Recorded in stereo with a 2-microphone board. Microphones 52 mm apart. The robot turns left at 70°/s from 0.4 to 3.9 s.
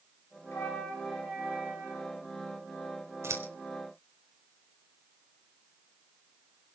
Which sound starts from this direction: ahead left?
A flute, at 0.5 s.